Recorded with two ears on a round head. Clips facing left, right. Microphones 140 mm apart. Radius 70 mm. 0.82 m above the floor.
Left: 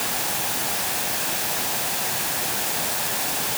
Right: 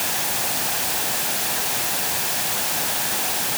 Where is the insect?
I don't hear an insect.